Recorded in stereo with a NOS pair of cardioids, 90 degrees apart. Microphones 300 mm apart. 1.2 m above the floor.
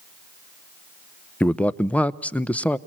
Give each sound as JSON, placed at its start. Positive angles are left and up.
{"t": 1.4, "sound": "a man speaking", "azimuth_deg": 5, "distance_m": 0.8}